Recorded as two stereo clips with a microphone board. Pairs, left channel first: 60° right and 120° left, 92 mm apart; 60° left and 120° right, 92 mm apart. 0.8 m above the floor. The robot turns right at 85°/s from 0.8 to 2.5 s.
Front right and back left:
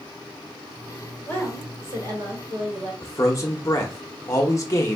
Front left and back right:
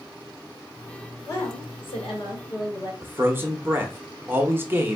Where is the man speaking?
75° right, 0.9 m.